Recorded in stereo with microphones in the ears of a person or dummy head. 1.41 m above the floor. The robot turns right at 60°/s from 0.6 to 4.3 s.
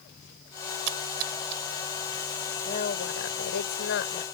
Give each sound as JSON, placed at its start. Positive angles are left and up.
{"t": 0.9, "sound": "a splash", "side_deg": -75}
{"t": 2.6, "sound": "a woman speaking", "azimuth_deg": 45}